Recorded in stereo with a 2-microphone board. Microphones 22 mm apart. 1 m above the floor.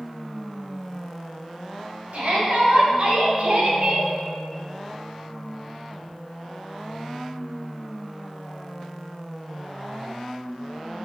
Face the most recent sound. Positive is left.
turn(degrees=-50)  # may be behind; listen again after turning